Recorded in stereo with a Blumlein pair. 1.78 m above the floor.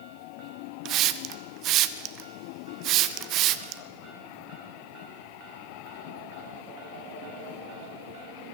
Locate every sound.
0.8 s a hiss: 35° right, 0.7 m